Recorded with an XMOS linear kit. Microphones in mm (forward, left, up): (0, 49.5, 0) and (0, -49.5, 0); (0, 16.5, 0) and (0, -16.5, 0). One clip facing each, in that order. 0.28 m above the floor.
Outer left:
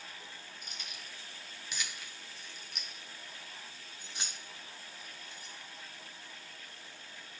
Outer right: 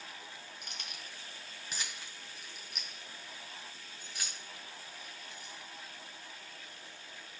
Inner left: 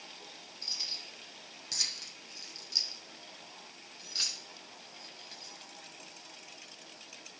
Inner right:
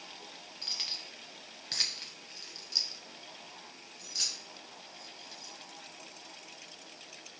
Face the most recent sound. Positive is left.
turn(degrees=35)  # may be behind; listen again after turning